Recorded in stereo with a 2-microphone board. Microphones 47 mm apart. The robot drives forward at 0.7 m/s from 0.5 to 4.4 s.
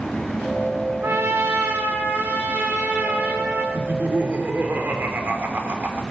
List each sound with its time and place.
1.0 s a trumpet: 65° right (ahead or behind), 4 m; by 3.6 s 50° right (ahead or behind), 5 m
3.7 s laughter: 55° right (ahead or behind), 3 m; by 6.0 s 50° right (ahead or behind), 3 m